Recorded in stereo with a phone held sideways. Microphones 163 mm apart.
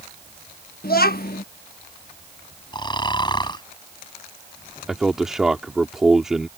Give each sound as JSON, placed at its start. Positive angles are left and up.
{"t": 0.8, "sound": "a child speaking", "side_deg": 70}
{"t": 2.7, "sound": "snoring", "side_deg": 30}
{"t": 4.9, "sound": "a man speaking", "side_deg": -5}